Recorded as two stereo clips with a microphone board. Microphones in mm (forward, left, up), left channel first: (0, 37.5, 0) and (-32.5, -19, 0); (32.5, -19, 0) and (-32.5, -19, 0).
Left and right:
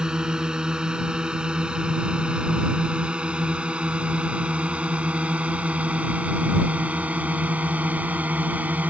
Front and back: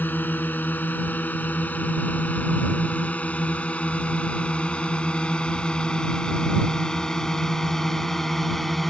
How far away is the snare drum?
No snare drum in this recording.